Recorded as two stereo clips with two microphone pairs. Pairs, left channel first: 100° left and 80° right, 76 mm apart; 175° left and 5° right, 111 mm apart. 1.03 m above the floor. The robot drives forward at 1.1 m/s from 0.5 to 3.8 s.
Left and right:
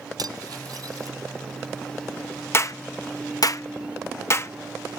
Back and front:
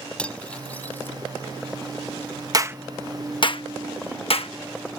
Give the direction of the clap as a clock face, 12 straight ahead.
10 o'clock.